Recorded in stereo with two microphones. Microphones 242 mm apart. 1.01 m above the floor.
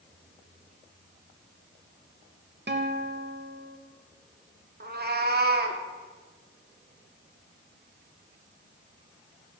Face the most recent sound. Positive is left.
turn(degrees=-40)  # may be behind; listen again after turning